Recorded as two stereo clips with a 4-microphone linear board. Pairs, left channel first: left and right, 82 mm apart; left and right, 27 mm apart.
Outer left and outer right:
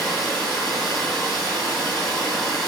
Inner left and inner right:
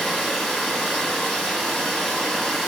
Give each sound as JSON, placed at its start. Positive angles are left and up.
{"t": 0.0, "sound": "running water", "side_deg": 5, "distance_m": 1.2}